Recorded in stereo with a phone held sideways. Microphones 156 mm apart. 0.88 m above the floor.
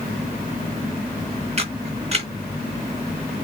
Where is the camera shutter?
40° right (ahead or behind), 2.5 m.